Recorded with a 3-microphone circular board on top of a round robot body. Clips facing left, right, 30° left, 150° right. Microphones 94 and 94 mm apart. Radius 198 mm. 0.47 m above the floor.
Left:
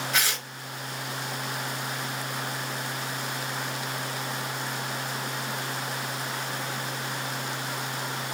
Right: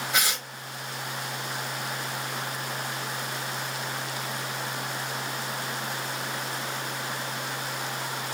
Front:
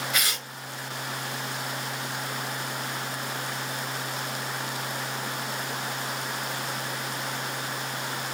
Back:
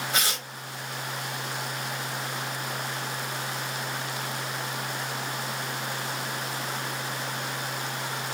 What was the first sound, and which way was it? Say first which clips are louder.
Tearing paper: right 1 dB, back 1 dB; 150° right.